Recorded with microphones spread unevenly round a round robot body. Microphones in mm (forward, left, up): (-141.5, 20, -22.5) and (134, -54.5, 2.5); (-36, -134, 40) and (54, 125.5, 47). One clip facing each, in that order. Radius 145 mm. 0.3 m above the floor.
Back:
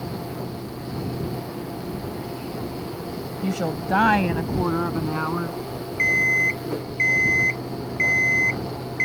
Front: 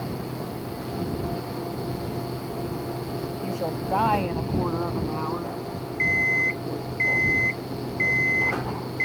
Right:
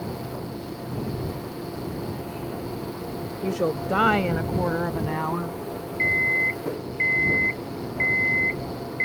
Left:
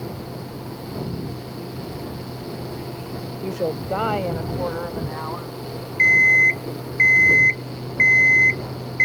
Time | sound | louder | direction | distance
3.4 | a woman speaking | back 6 dB, right 1 dB | 175° left | ?
6.0 | an alarm clock | back 1 dB, left 1 dB | 100° left | ?